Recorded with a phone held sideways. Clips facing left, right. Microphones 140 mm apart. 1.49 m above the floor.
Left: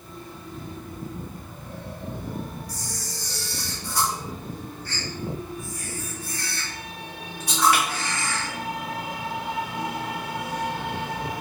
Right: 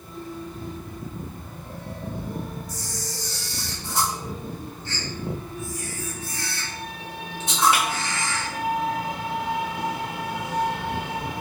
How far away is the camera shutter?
About 1.2 m.